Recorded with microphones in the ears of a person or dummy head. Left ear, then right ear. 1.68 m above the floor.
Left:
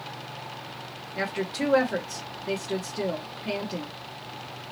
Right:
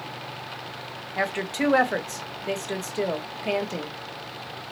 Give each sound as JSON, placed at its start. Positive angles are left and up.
{"t": 1.2, "sound": "a woman speaking", "side_deg": -30, "distance_m": 0.9}